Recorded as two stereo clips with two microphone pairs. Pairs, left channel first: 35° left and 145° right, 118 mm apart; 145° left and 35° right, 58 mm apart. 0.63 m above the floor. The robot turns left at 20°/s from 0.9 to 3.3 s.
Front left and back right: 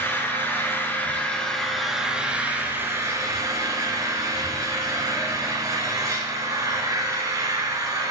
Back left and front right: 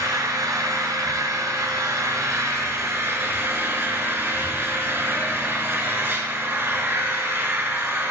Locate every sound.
0.0 s an engine running: 35° right, 2.0 m; by 8.1 s 80° right, 2.0 m